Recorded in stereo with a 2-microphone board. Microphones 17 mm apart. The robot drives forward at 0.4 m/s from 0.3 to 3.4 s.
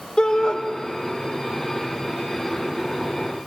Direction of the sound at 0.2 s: 70° left (ahead or behind).